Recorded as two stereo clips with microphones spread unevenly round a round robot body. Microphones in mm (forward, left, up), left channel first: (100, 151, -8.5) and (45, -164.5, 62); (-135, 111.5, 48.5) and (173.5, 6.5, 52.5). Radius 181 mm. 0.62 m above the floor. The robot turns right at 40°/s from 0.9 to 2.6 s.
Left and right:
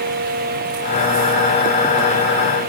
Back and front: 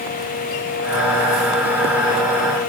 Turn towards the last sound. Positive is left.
No sound to turn to.